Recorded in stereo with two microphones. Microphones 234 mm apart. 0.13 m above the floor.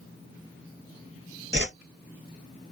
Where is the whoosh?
50° right (ahead or behind), 0.7 m.